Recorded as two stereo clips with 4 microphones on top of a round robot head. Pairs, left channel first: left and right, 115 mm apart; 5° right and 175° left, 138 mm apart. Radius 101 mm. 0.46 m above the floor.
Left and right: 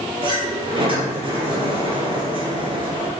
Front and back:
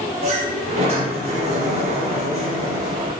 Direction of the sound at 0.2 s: 130° right.